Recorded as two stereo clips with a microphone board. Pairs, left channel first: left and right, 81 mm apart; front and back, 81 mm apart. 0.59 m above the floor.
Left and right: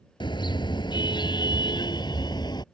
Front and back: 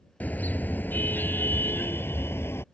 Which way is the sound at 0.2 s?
70° left.